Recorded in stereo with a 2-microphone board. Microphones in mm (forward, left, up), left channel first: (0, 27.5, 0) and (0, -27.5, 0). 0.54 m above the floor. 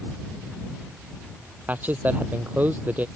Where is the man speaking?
35° right (ahead or behind); by 3.0 s 30° right (ahead or behind).